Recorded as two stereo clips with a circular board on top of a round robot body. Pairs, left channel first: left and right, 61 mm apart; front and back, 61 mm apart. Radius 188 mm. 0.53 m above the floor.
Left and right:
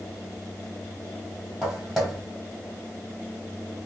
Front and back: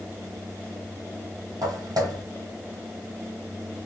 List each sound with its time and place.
1.6 s footsteps: 170° right, 1.5 m